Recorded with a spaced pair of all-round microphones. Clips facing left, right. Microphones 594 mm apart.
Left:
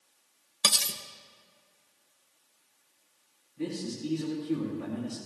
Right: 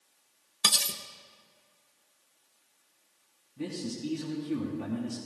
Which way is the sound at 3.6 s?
65° right (ahead or behind).